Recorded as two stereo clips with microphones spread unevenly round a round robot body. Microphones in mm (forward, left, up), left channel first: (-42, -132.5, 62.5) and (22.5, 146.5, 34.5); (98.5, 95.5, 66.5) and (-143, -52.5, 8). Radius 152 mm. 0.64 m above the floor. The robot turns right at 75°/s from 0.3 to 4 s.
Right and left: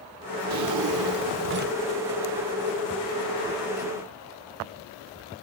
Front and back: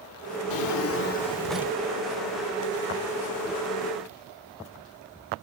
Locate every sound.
0.5 s a drawer: 45° left, 1.2 m; by 1.8 s 140° left, 1.2 m